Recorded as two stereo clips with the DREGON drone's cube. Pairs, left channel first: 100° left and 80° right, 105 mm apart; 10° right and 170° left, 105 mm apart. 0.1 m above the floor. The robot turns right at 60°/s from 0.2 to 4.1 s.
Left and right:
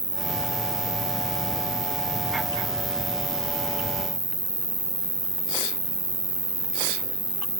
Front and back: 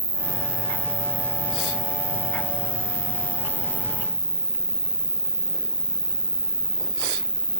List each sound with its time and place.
0.0 s an insect: 150° right; by 7.6 s 85° left